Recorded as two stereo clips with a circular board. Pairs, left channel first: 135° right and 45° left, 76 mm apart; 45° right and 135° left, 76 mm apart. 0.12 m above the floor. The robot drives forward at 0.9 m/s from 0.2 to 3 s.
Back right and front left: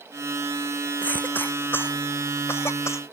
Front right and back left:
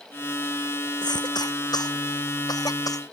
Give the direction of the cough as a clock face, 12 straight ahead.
2 o'clock.